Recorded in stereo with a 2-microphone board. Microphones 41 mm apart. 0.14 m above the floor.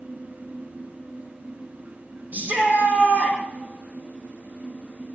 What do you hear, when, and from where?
2.3 s a shout: 50° right (ahead or behind), 6 m